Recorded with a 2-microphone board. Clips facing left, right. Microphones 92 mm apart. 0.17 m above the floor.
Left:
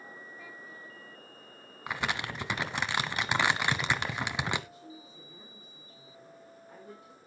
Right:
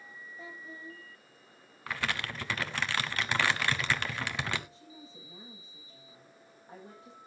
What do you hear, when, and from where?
0.4 s a child speaking: 25° right (ahead or behind), 3 m
1.9 s crumpling: 15° left (ahead or behind), 1.0 m
4.7 s a woman speaking: 30° right (ahead or behind), 9.5 m